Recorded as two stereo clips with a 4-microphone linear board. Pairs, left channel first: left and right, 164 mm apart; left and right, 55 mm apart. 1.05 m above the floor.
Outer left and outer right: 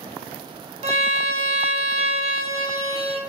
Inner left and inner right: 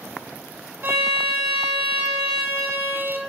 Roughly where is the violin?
Right.